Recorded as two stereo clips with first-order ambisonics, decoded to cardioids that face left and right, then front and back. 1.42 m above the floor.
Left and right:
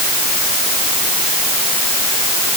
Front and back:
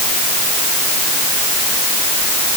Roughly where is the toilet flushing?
I don't hear a toilet flushing.